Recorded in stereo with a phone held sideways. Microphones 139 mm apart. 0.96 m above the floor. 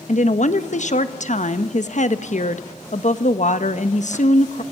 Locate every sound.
0.1 s a woman speaking: 60° left (ahead or behind), 1.2 m